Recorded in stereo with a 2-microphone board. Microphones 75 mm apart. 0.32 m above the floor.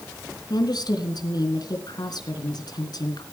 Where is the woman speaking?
65° left (ahead or behind), 3.5 m.